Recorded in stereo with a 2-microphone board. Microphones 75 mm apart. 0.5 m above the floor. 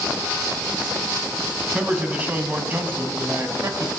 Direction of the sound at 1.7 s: 15° right (ahead or behind).